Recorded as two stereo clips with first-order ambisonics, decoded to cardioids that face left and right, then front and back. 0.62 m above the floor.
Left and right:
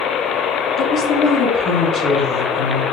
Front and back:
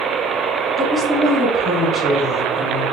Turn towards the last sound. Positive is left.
turn(degrees=85)